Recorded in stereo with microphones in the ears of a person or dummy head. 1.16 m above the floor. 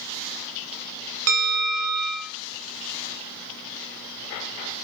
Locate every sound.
1.3 s a bell: 70° right (ahead or behind), 0.5 m